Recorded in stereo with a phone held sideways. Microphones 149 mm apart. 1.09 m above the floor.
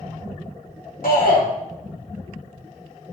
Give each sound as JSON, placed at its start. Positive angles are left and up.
{"t": 1.0, "sound": "a shout", "side_deg": 75, "distance_m": 3.5}